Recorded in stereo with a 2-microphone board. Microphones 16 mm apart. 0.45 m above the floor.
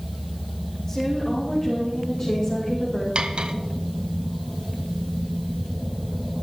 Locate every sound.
0.9 s a woman speaking: 25° left (ahead or behind), 5 m; by 3.0 s 45° left (ahead or behind), 4 m
3.1 s cutlery clinking: 65° right (ahead or behind), 1.2 m